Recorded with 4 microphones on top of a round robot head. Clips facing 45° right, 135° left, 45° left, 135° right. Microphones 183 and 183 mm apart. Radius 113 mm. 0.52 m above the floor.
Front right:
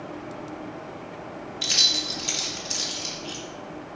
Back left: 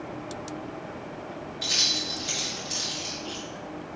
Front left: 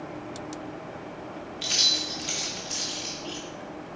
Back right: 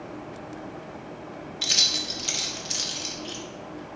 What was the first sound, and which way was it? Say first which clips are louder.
Keys jangling: front right 1 dB, even; 100° right.